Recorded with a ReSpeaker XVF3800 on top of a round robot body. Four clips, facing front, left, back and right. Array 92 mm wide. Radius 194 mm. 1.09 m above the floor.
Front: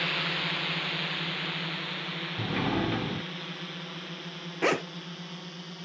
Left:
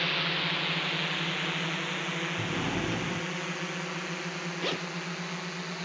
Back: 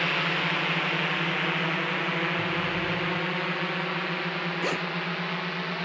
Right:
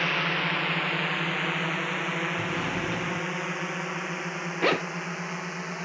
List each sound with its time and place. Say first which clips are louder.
0.0 s a drone: right 4 dB, back 5 dB; 130° right; by 5.8 s 155° right
2.4 s a sliding door: right 2 dB, back 1 dB; 10° left
4.6 s a zipper: right 10 dB, front 6 dB; 60° right